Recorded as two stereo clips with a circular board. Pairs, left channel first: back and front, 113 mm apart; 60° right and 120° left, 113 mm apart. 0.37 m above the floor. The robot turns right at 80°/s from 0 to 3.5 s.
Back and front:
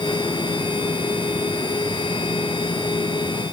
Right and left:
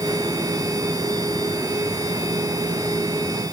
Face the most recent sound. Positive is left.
No sound to turn to.